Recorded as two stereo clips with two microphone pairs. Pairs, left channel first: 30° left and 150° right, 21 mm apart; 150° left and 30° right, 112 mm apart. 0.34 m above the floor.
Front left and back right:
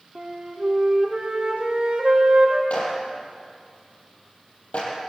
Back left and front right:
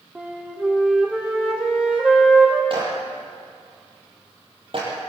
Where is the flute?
110° right, 3.5 m.